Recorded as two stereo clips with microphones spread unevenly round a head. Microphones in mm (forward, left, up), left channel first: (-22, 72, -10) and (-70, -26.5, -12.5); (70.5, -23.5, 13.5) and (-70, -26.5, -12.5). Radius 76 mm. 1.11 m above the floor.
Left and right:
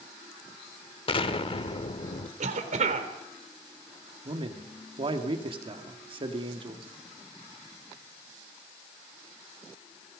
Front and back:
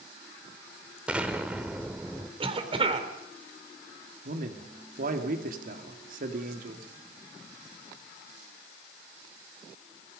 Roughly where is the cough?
Behind right.